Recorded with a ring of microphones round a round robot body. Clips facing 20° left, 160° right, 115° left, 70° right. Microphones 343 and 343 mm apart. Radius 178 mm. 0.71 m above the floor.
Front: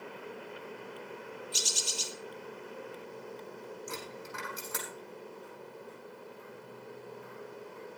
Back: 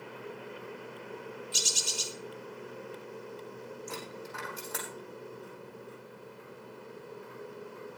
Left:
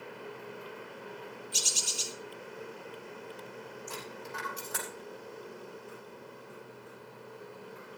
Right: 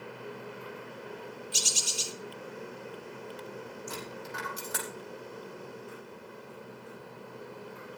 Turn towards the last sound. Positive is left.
turn(degrees=-60)